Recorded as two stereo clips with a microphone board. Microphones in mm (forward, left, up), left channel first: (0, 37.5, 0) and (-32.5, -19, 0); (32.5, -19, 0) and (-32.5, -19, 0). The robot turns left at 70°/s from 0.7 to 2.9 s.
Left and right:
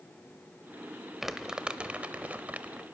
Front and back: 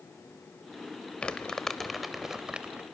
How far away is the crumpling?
About 0.7 m.